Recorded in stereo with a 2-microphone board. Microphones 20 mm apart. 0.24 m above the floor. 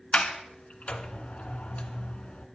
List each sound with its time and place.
0.1 s a sliding door: 70° left (ahead or behind), 1.3 m